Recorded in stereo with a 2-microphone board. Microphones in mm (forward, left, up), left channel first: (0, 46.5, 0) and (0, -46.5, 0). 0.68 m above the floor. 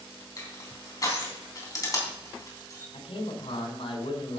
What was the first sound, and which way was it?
Crushing, 35° left (ahead or behind).